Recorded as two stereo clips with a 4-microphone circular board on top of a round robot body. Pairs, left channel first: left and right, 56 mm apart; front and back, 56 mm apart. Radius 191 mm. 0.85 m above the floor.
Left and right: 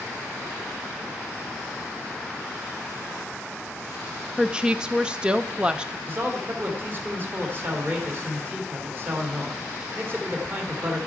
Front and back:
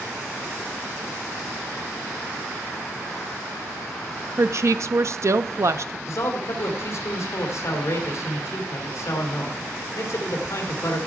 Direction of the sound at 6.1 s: 35° right.